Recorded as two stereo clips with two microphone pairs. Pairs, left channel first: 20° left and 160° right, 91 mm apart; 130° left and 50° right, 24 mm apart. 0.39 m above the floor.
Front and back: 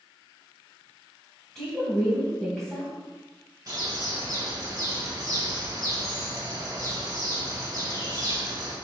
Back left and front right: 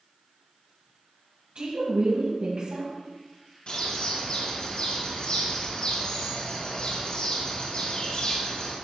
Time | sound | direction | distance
1.6 | a woman speaking | 65° right | 2.5 m
3.7 | a bird | 155° left | 2.5 m